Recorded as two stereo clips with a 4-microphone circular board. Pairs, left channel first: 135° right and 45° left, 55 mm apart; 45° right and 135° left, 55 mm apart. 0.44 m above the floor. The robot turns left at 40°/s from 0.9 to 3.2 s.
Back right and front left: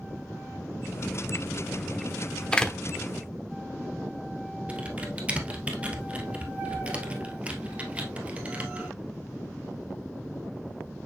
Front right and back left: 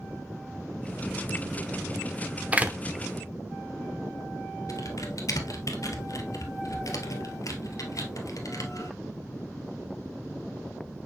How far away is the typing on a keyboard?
About 1.5 m.